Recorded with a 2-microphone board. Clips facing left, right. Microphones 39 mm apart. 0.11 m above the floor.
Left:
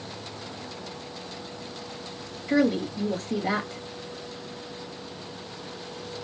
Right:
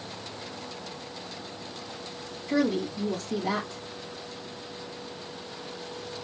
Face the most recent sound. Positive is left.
turn(degrees=40)  # may be behind; listen again after turning